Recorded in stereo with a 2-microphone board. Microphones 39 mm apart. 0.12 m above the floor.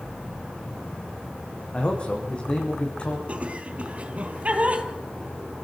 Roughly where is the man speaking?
Left.